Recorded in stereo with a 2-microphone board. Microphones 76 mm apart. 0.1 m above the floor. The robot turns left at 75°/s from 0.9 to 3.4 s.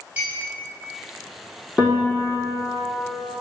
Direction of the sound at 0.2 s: 25° right (ahead or behind).